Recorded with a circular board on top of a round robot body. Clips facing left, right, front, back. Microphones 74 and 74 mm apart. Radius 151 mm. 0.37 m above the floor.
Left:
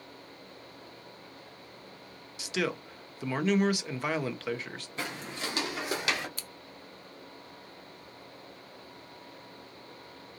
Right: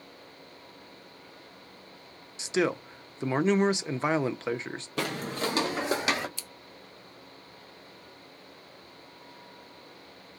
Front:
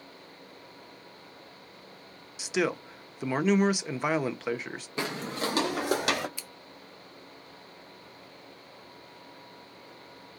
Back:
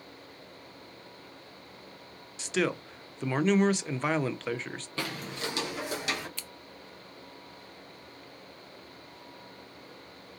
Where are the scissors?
75° left, 0.8 m.